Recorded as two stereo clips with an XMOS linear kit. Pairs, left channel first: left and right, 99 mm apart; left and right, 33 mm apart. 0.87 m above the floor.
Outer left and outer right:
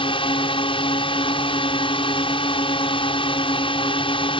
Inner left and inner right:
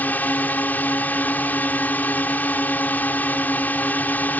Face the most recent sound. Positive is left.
turn(degrees=65)  # may be behind; listen again after turning